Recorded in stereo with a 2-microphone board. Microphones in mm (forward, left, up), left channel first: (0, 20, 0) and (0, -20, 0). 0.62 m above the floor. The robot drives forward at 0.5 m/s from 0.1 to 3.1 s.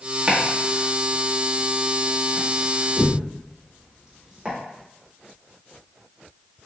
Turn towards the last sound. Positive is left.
turn(degrees=-15)  # may be behind; listen again after turning